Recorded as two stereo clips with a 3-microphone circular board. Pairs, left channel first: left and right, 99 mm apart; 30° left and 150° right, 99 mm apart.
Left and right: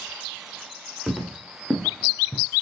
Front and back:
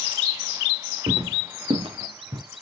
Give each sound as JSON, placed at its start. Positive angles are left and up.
{"t": 1.1, "sound": "footsteps", "azimuth_deg": -175, "distance_m": 2.5}